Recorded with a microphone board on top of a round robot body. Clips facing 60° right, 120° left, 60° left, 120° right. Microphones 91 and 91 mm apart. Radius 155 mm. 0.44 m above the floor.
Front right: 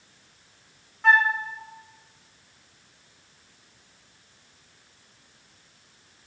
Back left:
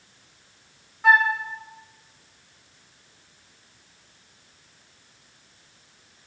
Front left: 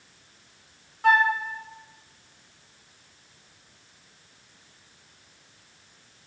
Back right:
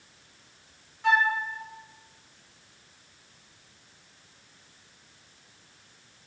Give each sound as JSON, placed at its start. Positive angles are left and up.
{"t": 1.0, "sound": "a flute", "azimuth_deg": 40, "distance_m": 1.3}